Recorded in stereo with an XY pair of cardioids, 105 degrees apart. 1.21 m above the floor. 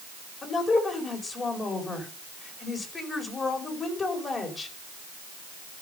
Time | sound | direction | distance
0.4 | a woman speaking | 35° left | 4.5 m